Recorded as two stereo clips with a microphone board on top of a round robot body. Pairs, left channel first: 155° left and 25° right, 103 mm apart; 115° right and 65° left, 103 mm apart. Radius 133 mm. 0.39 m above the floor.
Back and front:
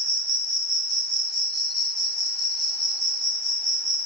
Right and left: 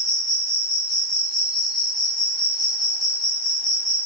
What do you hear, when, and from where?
0.0 s an insect: 65° right, 1.4 m